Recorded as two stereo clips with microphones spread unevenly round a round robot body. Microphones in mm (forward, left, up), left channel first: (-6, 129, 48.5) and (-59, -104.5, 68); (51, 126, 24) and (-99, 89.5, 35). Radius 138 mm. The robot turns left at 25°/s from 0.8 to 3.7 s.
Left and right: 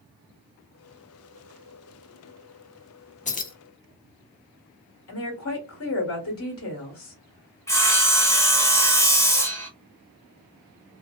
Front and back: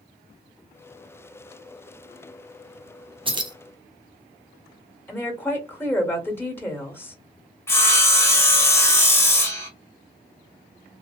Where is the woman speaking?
90° left, 1.8 m.